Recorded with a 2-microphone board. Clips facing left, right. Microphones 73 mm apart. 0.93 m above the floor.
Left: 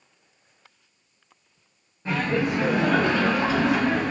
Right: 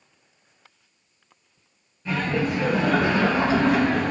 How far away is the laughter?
About 0.8 m.